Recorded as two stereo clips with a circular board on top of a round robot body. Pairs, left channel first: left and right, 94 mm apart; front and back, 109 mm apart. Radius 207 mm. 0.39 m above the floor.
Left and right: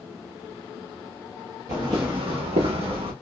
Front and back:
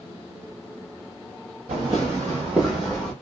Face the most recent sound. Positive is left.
turn(degrees=-85)